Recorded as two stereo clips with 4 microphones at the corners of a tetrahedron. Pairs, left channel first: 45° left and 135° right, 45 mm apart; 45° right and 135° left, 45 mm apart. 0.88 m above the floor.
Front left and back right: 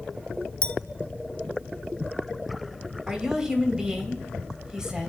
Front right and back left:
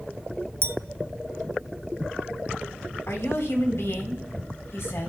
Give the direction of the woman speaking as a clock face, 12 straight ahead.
2 o'clock.